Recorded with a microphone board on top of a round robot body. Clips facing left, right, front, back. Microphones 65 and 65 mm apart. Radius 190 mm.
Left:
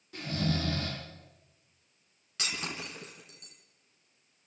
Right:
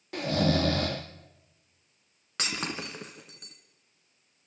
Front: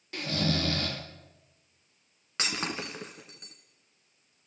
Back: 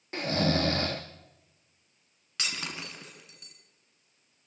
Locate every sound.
0.1 s snoring: 125° right, 0.5 m
2.4 s breaking glass: 55° right, 1.2 m